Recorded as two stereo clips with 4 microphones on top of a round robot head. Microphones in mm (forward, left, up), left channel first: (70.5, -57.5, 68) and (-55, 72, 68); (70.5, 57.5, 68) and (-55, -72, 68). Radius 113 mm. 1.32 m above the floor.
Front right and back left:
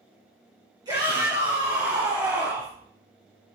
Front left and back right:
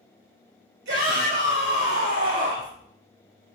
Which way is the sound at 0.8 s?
160° right.